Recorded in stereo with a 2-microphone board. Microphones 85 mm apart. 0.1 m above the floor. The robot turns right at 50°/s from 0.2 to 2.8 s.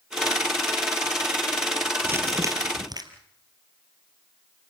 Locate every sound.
2.0 s crumpling: 150° right, 2 m; by 3.0 s 110° right, 2 m